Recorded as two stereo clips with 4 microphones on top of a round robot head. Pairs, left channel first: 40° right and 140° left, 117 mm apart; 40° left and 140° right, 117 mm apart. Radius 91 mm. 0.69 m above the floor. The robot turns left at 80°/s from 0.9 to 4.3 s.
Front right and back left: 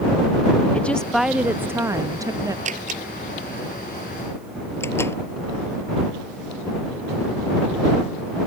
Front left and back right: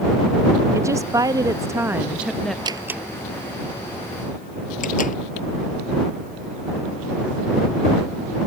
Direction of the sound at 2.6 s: 165° left.